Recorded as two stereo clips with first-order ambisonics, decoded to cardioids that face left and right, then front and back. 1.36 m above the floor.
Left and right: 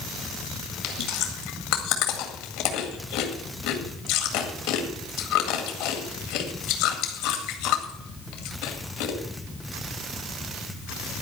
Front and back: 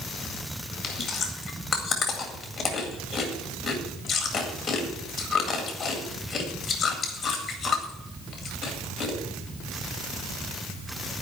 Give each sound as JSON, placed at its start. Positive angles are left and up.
{"t": 0.8, "sound": "chewing", "azimuth_deg": 70, "distance_m": 2.0}